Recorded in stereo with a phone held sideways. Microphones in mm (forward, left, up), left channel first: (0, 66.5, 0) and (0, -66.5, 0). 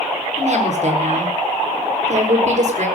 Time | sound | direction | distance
0.4 | a woman speaking | 60° right (ahead or behind) | 4.5 m